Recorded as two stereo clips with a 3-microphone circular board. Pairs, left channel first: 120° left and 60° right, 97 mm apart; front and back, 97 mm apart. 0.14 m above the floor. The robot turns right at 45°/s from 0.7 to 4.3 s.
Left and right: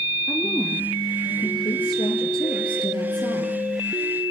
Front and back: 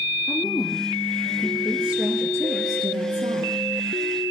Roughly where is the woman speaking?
Ahead left.